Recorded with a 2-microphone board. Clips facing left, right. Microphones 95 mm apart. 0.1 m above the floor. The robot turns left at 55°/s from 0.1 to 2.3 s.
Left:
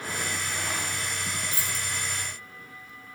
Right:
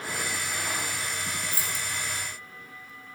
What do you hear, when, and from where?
1.5 s keys jangling: 25° left (ahead or behind), 3 m; by 1.9 s 10° left (ahead or behind), 3 m